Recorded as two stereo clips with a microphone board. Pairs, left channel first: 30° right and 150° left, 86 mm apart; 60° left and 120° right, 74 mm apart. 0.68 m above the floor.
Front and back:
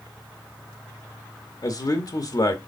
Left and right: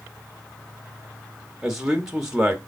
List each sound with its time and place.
1.6 s a man speaking: 40° right, 1.0 m